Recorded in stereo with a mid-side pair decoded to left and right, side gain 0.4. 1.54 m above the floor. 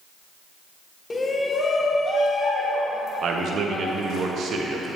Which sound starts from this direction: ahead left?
A shout, at 1.1 s.